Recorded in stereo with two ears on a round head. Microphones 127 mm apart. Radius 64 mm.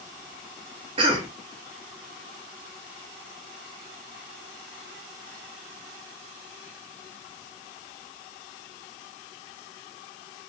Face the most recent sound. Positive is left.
turn(degrees=-35)  # may be behind; listen again after turning